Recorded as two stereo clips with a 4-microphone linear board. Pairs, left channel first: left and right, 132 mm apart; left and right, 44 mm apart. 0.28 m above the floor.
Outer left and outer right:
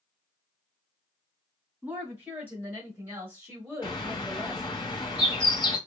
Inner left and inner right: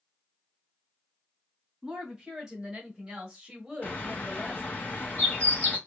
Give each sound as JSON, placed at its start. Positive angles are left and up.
{"t": 1.8, "sound": "a woman speaking", "side_deg": -15, "distance_m": 1.9}
{"t": 3.8, "sound": "a bird", "side_deg": 35, "distance_m": 1.3}